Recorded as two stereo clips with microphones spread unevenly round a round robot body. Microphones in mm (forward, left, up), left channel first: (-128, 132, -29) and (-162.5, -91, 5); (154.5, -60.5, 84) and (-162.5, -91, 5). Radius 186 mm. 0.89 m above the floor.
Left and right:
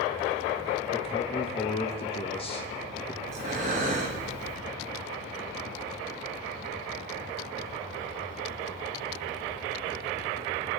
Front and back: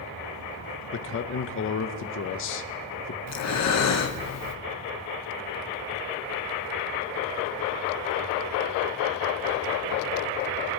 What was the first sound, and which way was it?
A man speaking, 55° left.